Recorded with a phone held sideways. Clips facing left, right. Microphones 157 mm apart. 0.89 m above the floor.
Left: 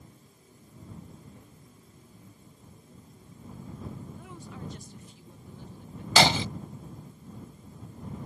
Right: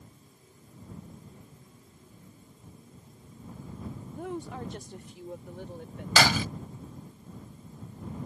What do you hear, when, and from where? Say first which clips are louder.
4.1 s a woman speaking: right 8 dB; 55° right (ahead or behind); by 6.1 s 85° right
6.2 s breaking glass: left 2 dB; 25° left (ahead or behind)